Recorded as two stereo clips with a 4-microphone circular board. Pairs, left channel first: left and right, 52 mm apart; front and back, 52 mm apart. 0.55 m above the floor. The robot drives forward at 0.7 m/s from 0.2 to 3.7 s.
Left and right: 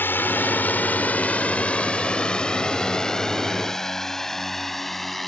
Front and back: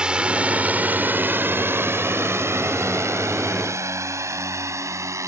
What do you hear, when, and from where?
0.0 s a drone: 115° left; by 5.3 s 175° left